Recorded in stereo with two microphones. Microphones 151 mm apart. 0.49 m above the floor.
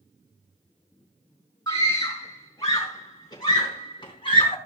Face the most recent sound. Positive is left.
turn(degrees=35)  # may be behind; listen again after turning